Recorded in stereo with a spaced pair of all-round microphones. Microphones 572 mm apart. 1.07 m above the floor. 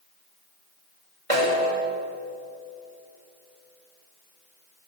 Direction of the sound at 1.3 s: 65° right (ahead or behind).